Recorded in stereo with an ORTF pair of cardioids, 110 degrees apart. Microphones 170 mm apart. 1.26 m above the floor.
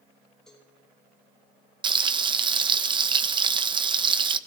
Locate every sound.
0.5 s a cowbell: 5° left, 8.5 m
1.8 s frying: 25° right, 0.9 m